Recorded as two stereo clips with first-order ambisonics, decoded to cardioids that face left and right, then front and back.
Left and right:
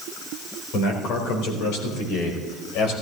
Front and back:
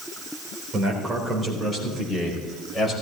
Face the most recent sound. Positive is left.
turn(degrees=90)